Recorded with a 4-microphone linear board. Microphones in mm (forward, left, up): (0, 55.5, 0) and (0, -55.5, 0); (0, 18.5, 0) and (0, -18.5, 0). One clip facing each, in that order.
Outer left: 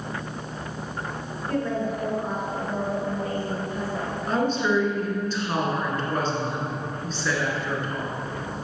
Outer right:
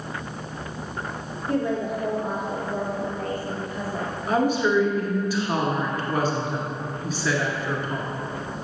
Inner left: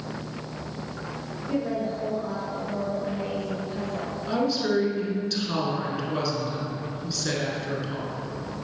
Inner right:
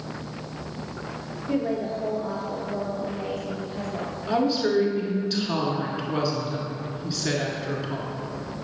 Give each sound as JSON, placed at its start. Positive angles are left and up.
{"t": 1.5, "sound": "a woman speaking", "side_deg": -20, "distance_m": 1.8}
{"t": 4.3, "sound": "a woman speaking", "side_deg": -10, "distance_m": 1.3}